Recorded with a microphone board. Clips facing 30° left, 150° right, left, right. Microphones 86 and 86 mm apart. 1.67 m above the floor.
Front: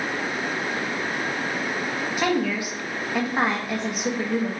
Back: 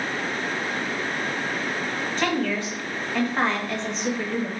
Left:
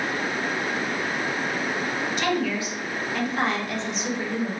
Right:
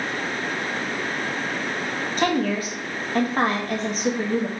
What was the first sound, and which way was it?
A woman speaking, 50° right.